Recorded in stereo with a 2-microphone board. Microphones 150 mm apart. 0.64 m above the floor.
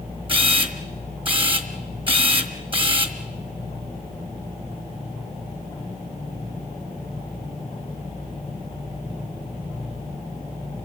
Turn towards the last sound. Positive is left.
turn(degrees=-35)  # may be behind; listen again after turning